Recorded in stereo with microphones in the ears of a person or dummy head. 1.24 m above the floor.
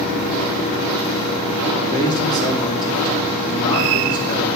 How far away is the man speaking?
About 3 m.